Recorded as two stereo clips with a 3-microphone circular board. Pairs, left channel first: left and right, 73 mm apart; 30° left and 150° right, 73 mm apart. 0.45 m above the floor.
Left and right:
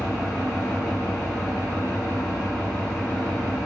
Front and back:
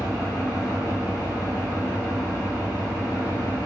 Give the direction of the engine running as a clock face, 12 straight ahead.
6 o'clock.